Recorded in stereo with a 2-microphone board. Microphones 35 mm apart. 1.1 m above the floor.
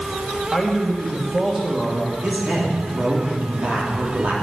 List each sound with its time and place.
0.5 s a man speaking: 15° right (ahead or behind), 1.5 m
2.2 s a man speaking: 40° right (ahead or behind), 3 m